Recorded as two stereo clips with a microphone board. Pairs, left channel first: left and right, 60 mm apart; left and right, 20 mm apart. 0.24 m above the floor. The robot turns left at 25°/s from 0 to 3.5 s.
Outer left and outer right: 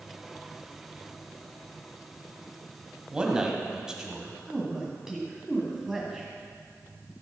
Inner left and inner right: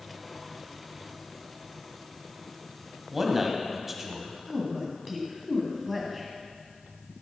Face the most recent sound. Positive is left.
turn(degrees=-10)  # may be behind; listen again after turning